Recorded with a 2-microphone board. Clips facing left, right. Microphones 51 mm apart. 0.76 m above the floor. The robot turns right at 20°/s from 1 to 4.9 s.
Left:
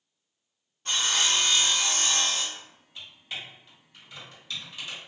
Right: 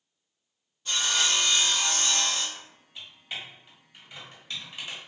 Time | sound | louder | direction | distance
0.8 | sawing | left 1 dB | 45° left (ahead or behind) | 0.9 m
2.5 | typing on a keyboard | even | centre (ahead or behind) | 1.4 m